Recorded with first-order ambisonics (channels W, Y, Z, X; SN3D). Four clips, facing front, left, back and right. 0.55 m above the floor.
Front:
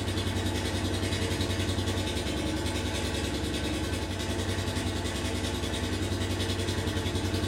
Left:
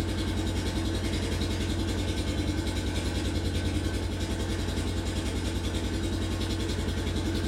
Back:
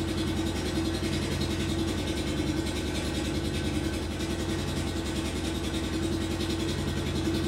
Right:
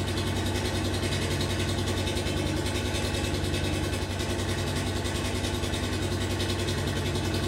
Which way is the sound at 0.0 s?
65° right.